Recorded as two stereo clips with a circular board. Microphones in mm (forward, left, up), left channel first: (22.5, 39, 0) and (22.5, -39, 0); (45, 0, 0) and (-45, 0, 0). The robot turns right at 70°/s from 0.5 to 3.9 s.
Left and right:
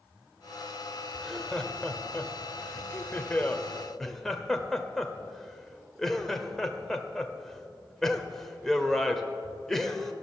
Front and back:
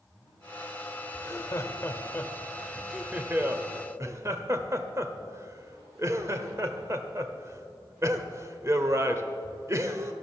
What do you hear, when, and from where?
1.1 s laughter: 20° right, 1.2 m; by 10.1 s 175° left, 1.2 m